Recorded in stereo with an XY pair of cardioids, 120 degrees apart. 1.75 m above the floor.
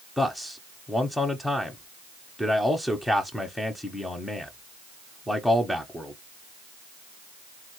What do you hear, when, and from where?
0.2 s a man speaking: 5° left, 0.9 m